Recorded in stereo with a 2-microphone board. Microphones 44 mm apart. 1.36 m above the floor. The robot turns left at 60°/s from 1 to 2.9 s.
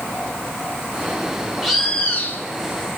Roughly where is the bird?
Behind.